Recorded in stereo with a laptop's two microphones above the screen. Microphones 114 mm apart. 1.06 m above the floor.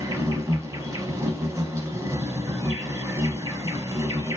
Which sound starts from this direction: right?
An insect, at 0.0 s.